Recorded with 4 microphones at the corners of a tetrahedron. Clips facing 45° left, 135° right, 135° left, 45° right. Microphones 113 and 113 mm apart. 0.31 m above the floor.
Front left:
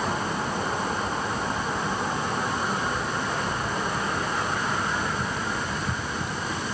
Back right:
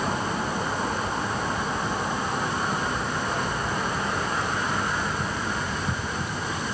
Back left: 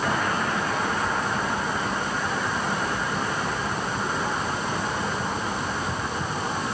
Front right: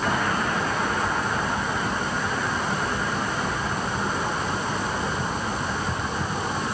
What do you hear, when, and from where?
Only background noise.